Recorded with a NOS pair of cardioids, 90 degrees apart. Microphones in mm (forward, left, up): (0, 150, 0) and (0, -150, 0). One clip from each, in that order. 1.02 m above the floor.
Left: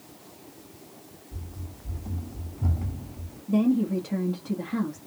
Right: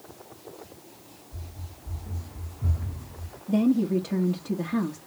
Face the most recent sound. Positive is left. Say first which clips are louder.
# right 1 dB
turn(degrees=-10)